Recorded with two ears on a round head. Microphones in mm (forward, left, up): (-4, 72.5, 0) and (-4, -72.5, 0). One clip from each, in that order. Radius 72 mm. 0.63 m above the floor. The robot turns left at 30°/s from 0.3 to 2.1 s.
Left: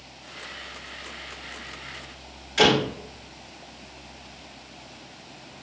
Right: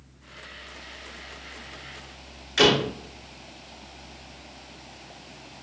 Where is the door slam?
30° right (ahead or behind), 1.6 m.